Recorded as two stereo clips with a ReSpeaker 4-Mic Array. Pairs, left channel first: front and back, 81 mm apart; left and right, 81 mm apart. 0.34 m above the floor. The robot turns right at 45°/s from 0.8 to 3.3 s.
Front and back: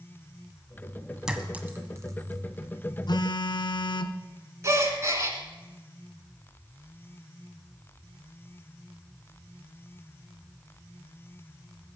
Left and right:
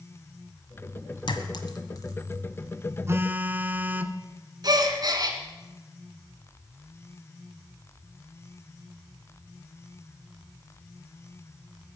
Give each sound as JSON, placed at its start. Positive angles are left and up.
{"t": 1.3, "sound": "a clink", "azimuth_deg": 100, "distance_m": 1.5}
{"t": 3.1, "sound": "a phone buzzing", "azimuth_deg": -35, "distance_m": 0.8}
{"t": 4.6, "sound": "a gasp", "azimuth_deg": -125, "distance_m": 1.7}